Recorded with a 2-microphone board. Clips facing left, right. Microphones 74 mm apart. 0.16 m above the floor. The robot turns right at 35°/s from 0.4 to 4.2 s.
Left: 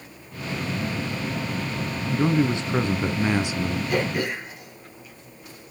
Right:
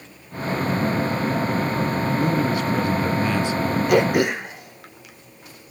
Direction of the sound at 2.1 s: 25° left (ahead or behind).